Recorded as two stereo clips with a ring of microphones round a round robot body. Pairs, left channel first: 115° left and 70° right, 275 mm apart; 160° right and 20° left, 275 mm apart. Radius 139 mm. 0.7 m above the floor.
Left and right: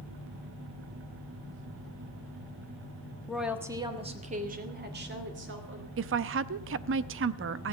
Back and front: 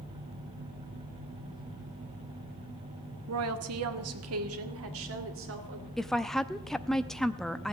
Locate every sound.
3.3 s a woman speaking: 25° left, 1.3 m; by 5.9 s 20° right, 3 m
6.0 s a woman speaking: 70° right, 0.6 m